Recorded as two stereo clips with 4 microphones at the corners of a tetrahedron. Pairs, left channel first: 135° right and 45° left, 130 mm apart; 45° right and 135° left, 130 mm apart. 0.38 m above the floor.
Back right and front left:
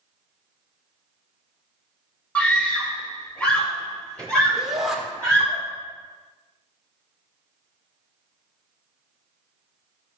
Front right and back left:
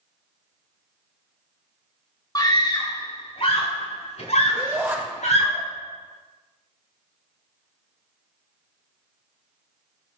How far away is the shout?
About 1.3 m.